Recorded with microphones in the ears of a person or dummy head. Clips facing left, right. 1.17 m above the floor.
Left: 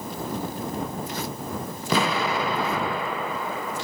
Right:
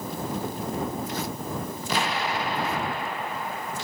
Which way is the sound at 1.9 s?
50° left (ahead or behind).